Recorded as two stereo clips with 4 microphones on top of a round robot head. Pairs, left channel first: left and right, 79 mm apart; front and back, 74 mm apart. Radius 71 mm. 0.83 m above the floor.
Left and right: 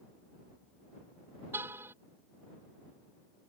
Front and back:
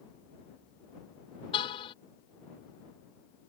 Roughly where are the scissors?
I don't hear scissors.